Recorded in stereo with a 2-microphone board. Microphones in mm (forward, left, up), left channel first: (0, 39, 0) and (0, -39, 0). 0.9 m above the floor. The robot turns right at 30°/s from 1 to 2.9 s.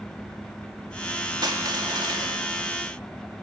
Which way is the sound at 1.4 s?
65° right (ahead or behind).